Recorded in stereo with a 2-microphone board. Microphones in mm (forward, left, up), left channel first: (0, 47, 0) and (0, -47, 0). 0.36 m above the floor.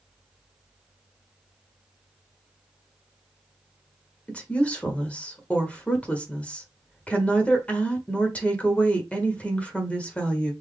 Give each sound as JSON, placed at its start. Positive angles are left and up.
{"t": 4.3, "sound": "a woman speaking", "side_deg": 15, "distance_m": 1.2}